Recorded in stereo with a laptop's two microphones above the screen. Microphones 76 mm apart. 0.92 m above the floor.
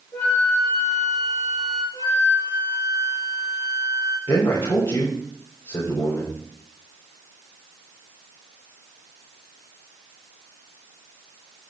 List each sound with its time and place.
0.1 s a flute: 35° left (ahead or behind), 4 m
1.9 s a flute: 85° left, 7.5 m
4.3 s a man speaking: 75° left (ahead or behind), 3.5 m